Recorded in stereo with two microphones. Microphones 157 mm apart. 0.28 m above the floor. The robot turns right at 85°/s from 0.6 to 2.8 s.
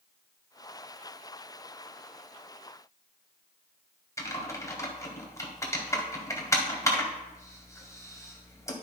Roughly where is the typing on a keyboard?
Centre.